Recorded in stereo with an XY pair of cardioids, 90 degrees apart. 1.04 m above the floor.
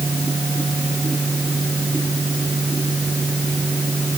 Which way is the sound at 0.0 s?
25° right.